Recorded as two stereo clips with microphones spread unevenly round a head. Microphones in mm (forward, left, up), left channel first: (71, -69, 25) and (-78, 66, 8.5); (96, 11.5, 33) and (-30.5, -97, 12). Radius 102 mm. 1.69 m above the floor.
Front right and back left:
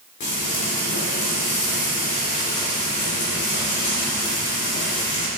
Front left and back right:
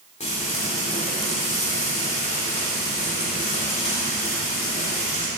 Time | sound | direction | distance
0.2 | frying | 5° right | 3.5 m